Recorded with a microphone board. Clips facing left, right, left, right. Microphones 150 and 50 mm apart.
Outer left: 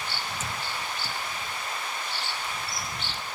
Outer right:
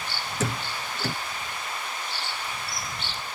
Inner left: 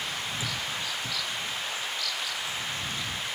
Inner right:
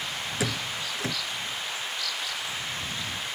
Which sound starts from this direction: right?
A door slam, at 0.4 s.